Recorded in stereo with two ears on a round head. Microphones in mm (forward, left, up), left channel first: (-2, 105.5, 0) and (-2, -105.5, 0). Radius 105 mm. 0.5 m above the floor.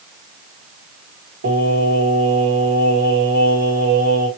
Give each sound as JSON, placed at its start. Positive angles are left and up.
{"t": 1.4, "sound": "singing", "side_deg": -60, "distance_m": 2.0}